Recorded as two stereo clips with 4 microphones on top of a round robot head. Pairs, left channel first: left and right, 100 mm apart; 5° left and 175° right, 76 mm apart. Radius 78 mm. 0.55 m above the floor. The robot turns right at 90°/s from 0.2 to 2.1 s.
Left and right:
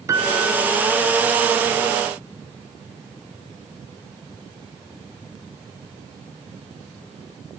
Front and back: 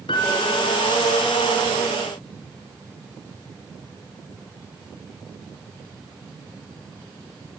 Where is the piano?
30° right, 3 m; by 0.7 s 15° left, 3 m.